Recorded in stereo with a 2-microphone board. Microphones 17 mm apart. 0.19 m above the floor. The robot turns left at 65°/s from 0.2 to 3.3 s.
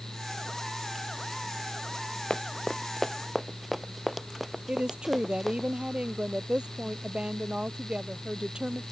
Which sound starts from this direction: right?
A woman speaking, at 4.7 s.